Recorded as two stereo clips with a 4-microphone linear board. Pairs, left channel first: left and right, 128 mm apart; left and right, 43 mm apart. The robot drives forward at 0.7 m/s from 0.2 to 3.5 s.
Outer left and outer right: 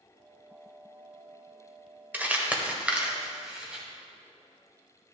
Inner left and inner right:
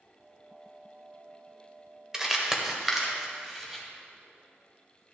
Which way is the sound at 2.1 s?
15° right (ahead or behind).